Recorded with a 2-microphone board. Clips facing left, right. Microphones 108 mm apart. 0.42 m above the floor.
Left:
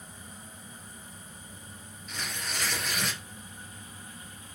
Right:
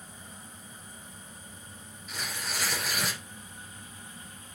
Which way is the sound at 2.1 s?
5° right (ahead or behind).